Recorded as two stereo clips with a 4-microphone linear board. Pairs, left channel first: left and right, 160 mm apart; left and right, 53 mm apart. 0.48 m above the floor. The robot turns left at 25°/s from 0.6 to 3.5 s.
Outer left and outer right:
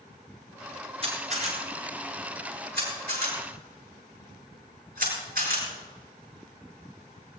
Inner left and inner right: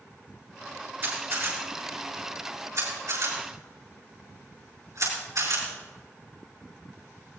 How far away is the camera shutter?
About 7.5 m.